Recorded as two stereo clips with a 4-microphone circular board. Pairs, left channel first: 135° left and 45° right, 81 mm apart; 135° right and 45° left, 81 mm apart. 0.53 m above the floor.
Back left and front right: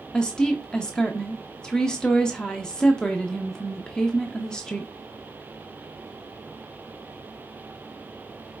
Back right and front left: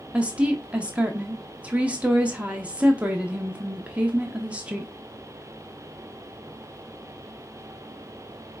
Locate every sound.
0.1 s a woman speaking: 75° left, 0.7 m